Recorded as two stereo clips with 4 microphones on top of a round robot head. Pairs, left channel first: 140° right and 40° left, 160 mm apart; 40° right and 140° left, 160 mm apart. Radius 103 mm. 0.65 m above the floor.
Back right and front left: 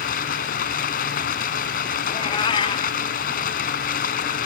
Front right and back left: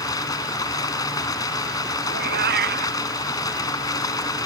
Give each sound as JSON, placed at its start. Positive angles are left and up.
{"t": 0.0, "sound": "running water", "azimuth_deg": -105}
{"t": 2.1, "sound": "a cat meowing", "azimuth_deg": 160}